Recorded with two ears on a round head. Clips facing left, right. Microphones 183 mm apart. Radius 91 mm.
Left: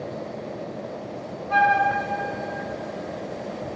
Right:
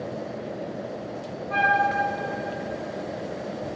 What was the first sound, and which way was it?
A flute, 60° left (ahead or behind).